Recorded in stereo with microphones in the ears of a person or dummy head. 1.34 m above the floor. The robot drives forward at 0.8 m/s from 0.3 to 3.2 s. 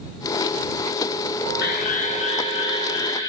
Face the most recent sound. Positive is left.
turn(degrees=25)  # may be behind; listen again after turning